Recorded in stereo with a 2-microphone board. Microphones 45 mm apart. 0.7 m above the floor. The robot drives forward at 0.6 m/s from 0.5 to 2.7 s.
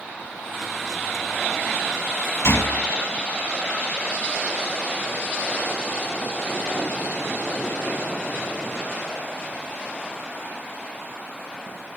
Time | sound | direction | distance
2.4 | a gunshot | 70° left (ahead or behind) | 1.8 m